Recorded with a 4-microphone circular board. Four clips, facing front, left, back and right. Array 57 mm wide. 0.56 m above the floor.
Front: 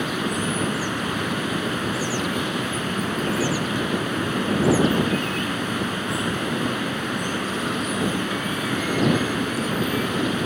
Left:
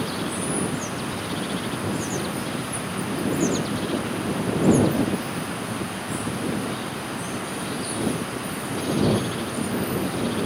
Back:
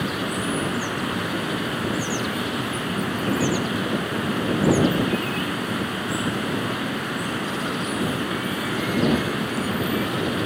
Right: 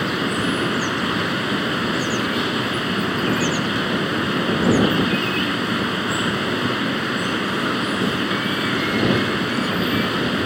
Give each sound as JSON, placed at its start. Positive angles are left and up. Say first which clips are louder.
{"t": 0.0, "sound": "running water", "louder": "right 6 dB, front 1 dB", "azimuth_deg": -90}